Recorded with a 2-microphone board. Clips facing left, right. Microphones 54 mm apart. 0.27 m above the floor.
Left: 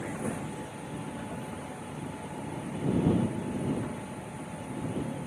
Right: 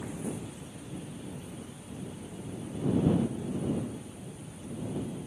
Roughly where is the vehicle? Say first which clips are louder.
Left 3 dB; left.